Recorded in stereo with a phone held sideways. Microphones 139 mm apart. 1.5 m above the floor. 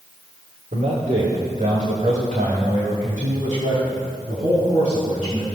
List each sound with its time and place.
0.7 s a man speaking: 70° right (ahead or behind), 1.8 m; by 5.5 s 75° right (ahead or behind), 4.5 m